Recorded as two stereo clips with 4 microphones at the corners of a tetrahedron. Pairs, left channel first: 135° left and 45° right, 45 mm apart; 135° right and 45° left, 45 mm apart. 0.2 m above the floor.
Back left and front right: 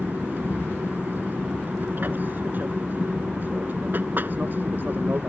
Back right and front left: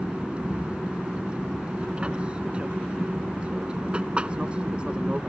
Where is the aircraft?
15° right.